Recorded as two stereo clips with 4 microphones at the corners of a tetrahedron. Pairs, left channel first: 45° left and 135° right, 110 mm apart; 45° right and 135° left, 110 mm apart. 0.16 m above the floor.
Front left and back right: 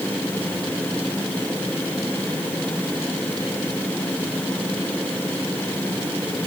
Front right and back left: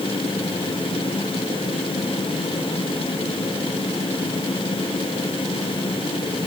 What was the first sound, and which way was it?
Only background noise.